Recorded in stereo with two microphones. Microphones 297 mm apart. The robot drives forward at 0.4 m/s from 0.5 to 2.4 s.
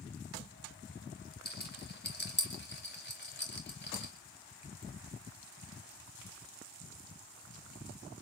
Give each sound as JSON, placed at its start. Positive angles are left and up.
{"t": 1.4, "sound": "a rattle", "side_deg": 35, "distance_m": 4.5}